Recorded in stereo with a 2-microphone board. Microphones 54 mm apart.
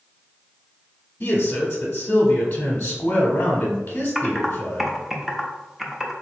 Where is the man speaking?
35° left (ahead or behind), 0.9 m.